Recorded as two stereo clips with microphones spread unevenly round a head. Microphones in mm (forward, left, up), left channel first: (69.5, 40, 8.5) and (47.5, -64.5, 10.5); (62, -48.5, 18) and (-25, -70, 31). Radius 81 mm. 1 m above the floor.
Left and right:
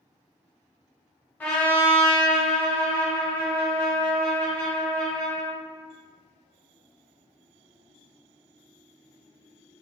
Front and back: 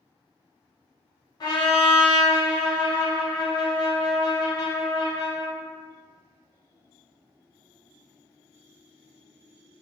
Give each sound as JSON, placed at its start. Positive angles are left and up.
{"t": 1.4, "sound": "a trumpet", "azimuth_deg": 10, "distance_m": 0.9}